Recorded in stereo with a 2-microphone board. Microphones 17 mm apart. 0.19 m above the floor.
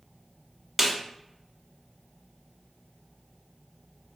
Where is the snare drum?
15° right (ahead or behind), 0.7 m.